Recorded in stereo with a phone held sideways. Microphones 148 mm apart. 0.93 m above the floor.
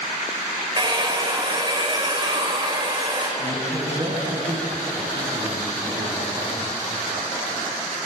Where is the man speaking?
55° right (ahead or behind), 7 m.